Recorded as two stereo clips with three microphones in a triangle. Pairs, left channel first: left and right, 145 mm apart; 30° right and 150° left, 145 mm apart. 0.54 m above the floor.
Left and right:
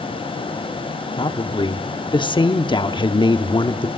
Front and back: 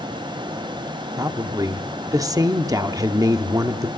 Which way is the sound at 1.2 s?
105° left.